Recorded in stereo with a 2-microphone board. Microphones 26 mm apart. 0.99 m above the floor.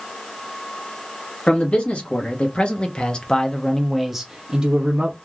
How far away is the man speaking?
About 1.4 m.